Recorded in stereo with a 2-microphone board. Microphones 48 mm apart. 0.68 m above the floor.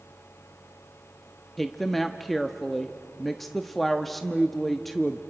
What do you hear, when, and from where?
1.6 s a woman speaking: centre (ahead or behind), 0.6 m